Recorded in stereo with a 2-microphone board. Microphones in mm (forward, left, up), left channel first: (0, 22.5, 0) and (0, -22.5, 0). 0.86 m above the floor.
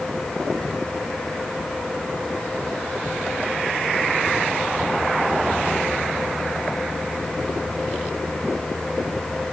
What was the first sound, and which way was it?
Only background noise.